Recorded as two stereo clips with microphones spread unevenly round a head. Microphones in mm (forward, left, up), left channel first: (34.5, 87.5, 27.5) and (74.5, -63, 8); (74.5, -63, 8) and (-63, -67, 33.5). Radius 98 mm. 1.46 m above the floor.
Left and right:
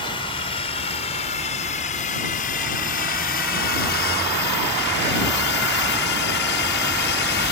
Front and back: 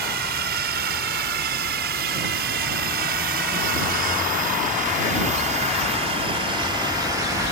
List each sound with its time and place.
0.0 s a drone: 170° left; by 7.5 s 105° left